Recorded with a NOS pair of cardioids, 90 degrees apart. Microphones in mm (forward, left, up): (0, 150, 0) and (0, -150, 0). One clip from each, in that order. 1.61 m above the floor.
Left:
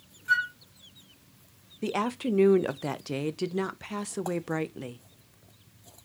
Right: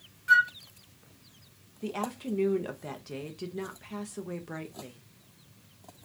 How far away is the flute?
About 0.5 m.